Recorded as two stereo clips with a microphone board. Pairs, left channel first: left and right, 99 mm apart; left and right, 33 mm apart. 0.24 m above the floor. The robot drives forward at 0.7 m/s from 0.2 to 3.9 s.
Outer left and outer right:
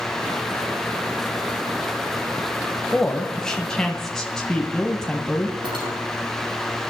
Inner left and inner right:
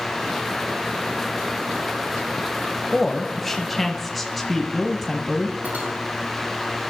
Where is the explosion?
No explosion in this recording.